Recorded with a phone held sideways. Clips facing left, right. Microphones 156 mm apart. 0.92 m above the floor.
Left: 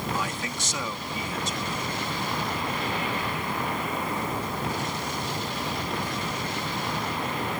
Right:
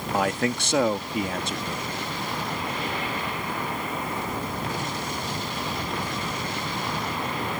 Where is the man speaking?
65° right (ahead or behind).